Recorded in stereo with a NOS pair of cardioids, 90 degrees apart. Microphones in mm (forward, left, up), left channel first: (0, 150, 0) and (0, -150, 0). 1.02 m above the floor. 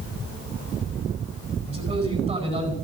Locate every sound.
1.7 s a man speaking: 20° right, 9 m